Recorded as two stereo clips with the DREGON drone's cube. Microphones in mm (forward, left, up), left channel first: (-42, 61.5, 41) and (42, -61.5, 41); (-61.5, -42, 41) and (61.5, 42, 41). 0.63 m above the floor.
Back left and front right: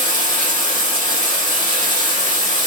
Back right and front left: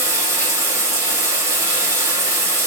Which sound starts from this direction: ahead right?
Running water, at 0.0 s.